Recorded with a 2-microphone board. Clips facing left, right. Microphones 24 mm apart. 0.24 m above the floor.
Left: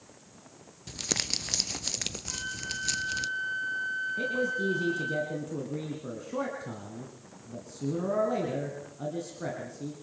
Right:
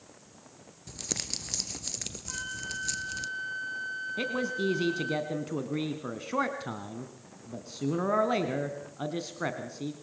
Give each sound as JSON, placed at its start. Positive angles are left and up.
{"t": 0.9, "sound": "crumpling", "side_deg": 30, "distance_m": 0.7}
{"t": 2.3, "sound": "a flute", "side_deg": 0, "distance_m": 7.5}
{"t": 4.2, "sound": "a man speaking", "side_deg": -55, "distance_m": 2.0}